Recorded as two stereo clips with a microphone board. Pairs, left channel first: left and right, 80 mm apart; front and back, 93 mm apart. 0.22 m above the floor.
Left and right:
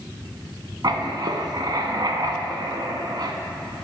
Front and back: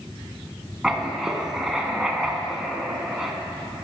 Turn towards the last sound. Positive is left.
turn(degrees=-95)